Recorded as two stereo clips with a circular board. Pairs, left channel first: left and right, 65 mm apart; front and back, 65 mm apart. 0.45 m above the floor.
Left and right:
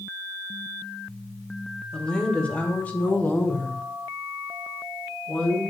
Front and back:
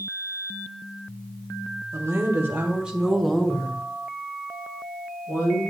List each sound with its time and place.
1.9 s a woman speaking: 160° left, 1.4 m; by 5.6 s 20° left, 2 m